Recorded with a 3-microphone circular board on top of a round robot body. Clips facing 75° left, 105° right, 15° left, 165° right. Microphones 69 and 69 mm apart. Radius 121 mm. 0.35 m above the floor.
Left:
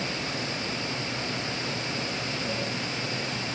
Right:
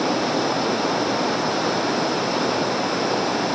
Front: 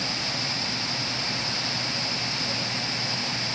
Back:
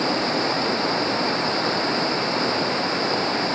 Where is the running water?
110° right.